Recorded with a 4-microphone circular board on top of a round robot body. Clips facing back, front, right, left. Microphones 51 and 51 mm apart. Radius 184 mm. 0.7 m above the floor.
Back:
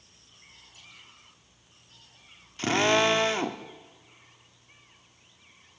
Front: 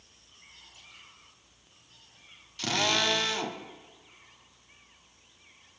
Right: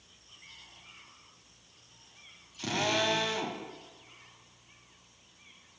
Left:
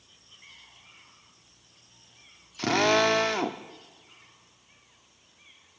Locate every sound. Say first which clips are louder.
2.6 s a drill: back 5 dB, left 8 dB; 120° left, 1.5 m